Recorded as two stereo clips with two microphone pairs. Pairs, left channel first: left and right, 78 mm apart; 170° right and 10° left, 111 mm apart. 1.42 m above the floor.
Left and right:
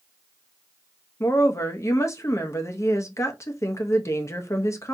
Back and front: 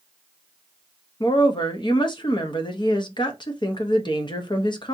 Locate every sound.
1.2 s a woman speaking: 145° left, 0.7 m